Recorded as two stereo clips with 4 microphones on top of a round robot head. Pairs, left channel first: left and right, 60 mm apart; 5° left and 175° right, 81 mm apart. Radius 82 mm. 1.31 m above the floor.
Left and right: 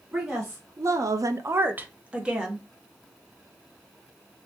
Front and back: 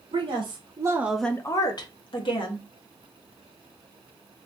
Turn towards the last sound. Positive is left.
turn(degrees=-15)